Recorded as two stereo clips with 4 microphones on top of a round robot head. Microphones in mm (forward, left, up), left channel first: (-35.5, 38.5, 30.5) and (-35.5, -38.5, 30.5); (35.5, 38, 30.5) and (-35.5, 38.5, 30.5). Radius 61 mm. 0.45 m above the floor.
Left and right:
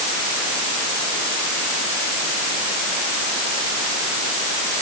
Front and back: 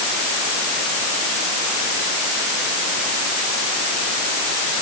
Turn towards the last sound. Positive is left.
No sound to turn to.